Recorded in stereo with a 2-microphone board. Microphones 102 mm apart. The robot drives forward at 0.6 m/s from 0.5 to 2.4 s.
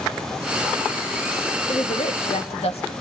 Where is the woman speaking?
70° left (ahead or behind), 1.9 m; by 2.9 s 80° left, 1.8 m.